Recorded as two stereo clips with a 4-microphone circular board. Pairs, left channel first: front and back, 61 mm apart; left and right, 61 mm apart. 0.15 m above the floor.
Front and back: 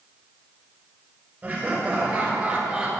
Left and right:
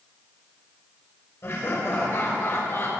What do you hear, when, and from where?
1.4 s laughter: 120° left, 3.5 m; by 3.0 s 110° left, 2.5 m